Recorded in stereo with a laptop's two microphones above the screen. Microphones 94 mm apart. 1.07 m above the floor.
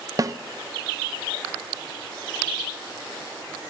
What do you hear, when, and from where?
0.2 s a snare drum: 35° right (ahead or behind), 0.5 m